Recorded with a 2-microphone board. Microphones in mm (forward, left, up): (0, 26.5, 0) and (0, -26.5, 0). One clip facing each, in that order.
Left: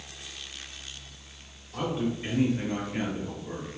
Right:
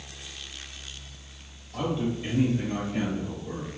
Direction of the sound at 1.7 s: 25° left (ahead or behind).